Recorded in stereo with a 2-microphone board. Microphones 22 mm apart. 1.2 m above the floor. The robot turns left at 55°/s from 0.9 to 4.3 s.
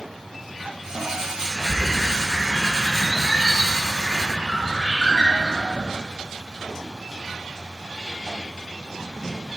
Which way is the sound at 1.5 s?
150° left.